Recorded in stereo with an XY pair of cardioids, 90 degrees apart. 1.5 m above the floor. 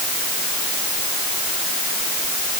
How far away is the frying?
No frying in this recording.